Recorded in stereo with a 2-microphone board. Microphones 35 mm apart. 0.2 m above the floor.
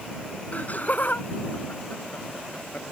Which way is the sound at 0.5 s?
50° left (ahead or behind).